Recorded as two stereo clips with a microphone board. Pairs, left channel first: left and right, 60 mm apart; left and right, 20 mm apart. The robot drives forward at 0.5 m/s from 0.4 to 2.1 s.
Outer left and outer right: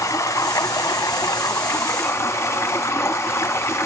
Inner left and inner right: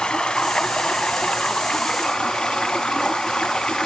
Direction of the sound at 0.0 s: 65° left (ahead or behind).